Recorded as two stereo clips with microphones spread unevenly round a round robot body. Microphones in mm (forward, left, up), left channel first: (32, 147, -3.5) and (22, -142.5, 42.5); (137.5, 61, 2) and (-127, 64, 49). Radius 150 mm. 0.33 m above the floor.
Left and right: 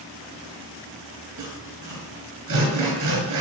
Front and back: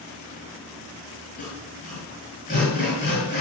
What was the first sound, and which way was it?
Sawing, 65° right.